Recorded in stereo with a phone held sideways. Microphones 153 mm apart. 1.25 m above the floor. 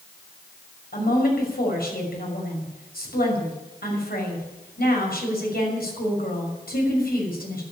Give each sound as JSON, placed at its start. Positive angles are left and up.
{"t": 0.9, "sound": "a woman speaking", "side_deg": 90, "distance_m": 6.0}